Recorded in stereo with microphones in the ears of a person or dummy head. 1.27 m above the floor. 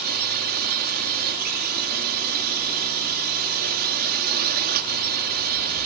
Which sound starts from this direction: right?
A drone, at 0.0 s.